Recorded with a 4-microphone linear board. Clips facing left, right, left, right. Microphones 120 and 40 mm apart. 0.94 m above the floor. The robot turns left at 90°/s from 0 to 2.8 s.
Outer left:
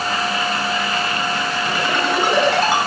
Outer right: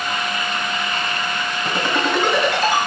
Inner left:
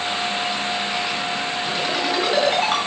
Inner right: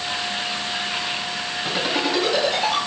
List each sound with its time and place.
1.6 s a ringtone: 40° right (ahead or behind), 7.5 m; by 2.8 s 60° left (ahead or behind), 7.5 m